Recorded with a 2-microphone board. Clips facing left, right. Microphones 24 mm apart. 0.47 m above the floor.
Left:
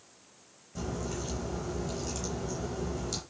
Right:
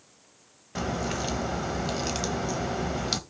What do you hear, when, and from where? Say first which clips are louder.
0.8 s a crack: right 6 dB; 85° right, 0.8 m